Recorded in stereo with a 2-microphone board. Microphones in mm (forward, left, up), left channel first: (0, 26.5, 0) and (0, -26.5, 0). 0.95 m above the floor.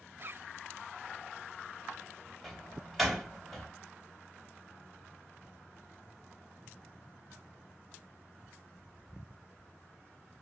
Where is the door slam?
Centre (ahead or behind), 2.5 m.